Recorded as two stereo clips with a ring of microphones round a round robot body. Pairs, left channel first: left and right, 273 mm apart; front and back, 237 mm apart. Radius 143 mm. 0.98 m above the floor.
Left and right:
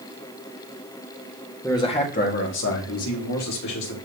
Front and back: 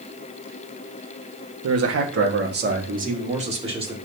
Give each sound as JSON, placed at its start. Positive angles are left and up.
{"t": 1.6, "sound": "a man speaking", "azimuth_deg": 170, "distance_m": 1.6}